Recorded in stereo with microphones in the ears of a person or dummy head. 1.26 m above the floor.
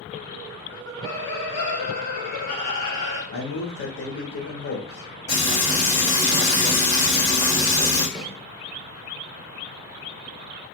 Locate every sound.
0.7 s laughter: 10° left (ahead or behind), 0.6 m; by 3.2 s 55° left (ahead or behind), 1.7 m
3.3 s a man speaking: 60° left (ahead or behind), 0.8 m
5.3 s frying: 55° left (ahead or behind), 1.5 m
8.2 s a snare drum: centre (ahead or behind), 0.7 m